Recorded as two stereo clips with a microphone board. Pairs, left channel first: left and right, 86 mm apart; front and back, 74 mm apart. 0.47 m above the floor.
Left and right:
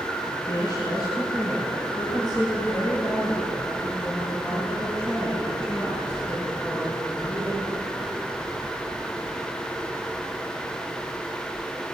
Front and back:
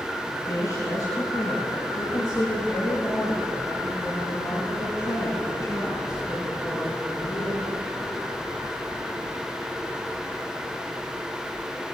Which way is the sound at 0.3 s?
50° left.